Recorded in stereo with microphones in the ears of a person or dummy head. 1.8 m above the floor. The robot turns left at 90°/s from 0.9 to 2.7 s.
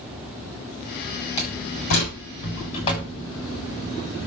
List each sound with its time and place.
1.4 s a door slam: 30° left (ahead or behind), 6.5 m